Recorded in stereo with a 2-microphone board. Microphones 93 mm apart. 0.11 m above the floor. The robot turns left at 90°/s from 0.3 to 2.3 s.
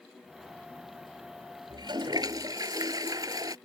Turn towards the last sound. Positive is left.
turn(degrees=-120)